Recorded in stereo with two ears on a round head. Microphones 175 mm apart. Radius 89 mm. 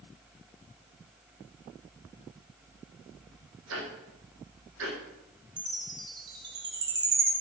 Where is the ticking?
75° right (ahead or behind), 6.5 m.